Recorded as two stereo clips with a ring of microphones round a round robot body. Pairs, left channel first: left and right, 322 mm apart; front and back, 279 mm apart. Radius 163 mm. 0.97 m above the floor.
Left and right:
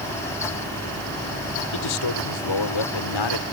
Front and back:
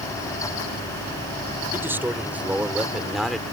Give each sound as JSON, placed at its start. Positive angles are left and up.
{"t": 1.7, "sound": "a man speaking", "azimuth_deg": 100}